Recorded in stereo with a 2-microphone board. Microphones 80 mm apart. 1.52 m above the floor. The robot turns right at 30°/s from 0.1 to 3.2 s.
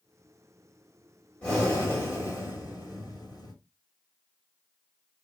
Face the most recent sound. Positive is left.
turn(degrees=70)